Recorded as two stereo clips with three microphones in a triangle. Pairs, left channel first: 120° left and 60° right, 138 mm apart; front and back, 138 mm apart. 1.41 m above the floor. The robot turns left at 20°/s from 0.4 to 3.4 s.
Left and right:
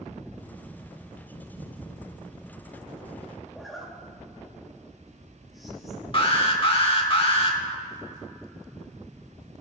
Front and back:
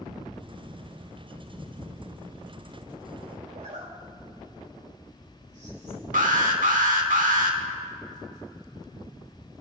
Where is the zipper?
150° right, 2.5 m.